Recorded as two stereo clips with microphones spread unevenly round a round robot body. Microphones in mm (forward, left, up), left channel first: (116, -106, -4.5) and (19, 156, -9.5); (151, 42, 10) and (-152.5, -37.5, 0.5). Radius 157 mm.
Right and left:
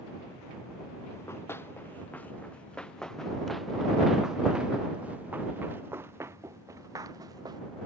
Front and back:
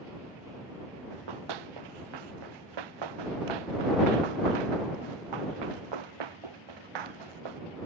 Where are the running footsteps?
150° right; by 7.6 s 170° right.